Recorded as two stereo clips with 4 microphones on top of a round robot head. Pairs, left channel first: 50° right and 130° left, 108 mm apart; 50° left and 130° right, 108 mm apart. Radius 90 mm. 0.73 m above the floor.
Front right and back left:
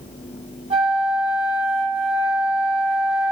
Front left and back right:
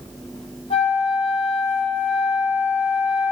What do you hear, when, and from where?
0.7 s a flute: 90° left, 1.0 m